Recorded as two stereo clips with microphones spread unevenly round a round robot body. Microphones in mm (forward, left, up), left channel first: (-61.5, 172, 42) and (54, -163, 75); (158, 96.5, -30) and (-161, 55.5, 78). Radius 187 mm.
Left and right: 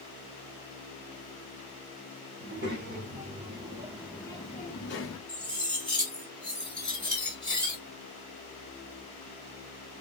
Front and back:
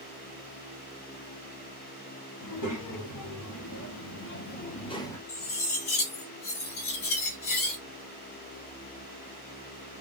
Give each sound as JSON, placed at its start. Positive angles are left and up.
{"t": 2.4, "sound": "a child speaking", "azimuth_deg": -10, "distance_m": 1.6}
{"t": 5.3, "sound": "cutlery clinking", "azimuth_deg": 25, "distance_m": 1.9}